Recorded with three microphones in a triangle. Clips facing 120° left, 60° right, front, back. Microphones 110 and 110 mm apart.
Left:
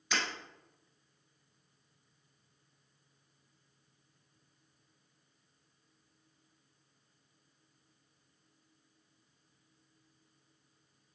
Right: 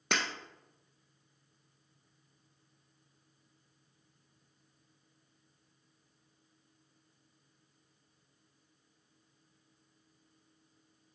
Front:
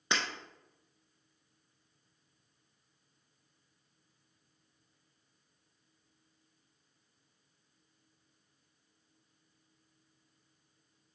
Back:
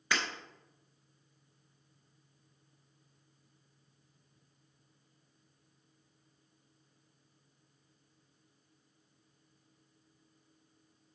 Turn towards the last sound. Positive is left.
turn(degrees=-65)